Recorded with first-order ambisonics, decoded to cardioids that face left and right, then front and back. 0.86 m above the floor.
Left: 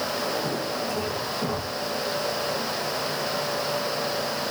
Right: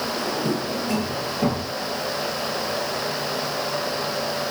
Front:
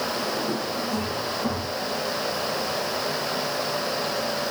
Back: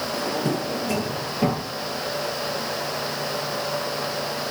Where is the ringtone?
I don't hear a ringtone.